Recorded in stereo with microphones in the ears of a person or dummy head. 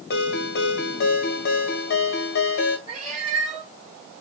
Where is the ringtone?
70° left (ahead or behind), 1.2 m.